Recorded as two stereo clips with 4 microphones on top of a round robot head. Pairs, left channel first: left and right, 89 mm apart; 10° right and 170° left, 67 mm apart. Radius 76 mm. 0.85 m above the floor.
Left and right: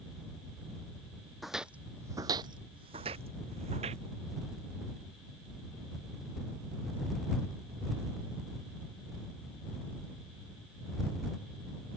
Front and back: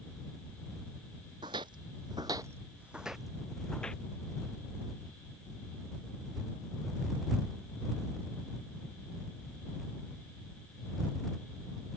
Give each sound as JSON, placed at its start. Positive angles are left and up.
{"t": 1.4, "sound": "footsteps", "azimuth_deg": 180}